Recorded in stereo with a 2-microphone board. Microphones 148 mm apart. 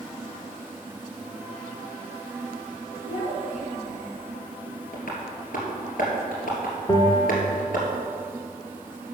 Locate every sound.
3.0 s a child speaking: 60° left (ahead or behind), 1.4 m; by 4.2 s 65° left (ahead or behind), 2.5 m
4.9 s tapping: 75° left (ahead or behind), 2.5 m
6.9 s a bell: 30° left (ahead or behind), 1.1 m